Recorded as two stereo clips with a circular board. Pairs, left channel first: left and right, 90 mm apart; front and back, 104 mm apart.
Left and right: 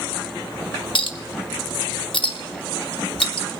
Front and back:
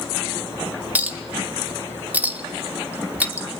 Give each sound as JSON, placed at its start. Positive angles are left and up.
{"t": 0.9, "sound": "a clink", "azimuth_deg": 105, "distance_m": 0.8}